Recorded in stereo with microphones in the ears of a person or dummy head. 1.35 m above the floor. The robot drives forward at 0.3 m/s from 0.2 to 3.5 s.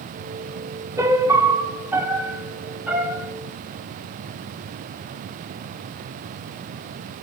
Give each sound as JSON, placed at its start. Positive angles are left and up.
{"t": 1.0, "sound": "a piano", "side_deg": -15, "distance_m": 0.6}